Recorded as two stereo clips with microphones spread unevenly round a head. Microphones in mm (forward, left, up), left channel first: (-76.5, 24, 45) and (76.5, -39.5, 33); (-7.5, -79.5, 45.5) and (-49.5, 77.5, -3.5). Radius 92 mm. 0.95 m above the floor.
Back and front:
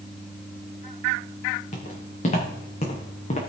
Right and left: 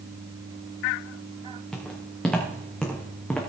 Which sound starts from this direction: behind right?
Footsteps, at 1.7 s.